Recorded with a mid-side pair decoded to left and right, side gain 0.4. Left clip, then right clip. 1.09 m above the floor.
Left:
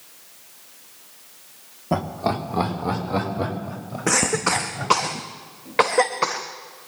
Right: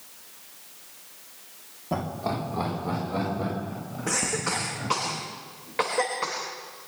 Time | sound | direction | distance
1.9 | laughter | 50° left | 3 m
4.1 | a cough | 60° left | 1.2 m